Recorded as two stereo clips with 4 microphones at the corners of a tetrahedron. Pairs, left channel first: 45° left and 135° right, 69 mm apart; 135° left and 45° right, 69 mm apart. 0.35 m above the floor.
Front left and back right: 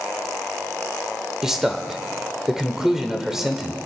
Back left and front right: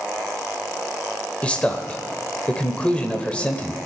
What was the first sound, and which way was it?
A man speaking, 155° left.